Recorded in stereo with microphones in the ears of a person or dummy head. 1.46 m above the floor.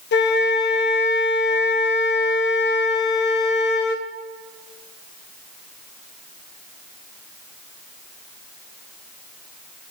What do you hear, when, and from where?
0.1 s a flute: 50° left (ahead or behind), 0.6 m